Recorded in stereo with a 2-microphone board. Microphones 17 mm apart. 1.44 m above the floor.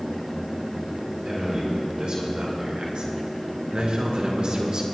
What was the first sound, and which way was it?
A man speaking, 55° right (ahead or behind).